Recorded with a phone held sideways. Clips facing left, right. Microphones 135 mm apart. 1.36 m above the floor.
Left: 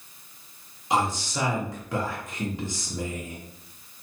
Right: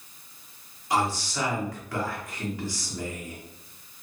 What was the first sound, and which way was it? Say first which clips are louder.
A man speaking: left 1 dB; 20° left (ahead or behind).